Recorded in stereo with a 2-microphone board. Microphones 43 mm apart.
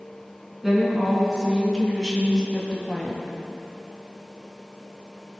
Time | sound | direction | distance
0.6 | a woman speaking | 15° right (ahead or behind) | 4 m